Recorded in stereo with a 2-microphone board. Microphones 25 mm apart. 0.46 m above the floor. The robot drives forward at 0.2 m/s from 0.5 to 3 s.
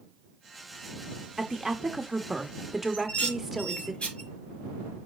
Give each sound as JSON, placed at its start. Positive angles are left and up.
{"t": 1.4, "sound": "a woman speaking", "side_deg": -10, "distance_m": 1.1}
{"t": 2.9, "sound": "dishes clattering", "side_deg": 50, "distance_m": 5.0}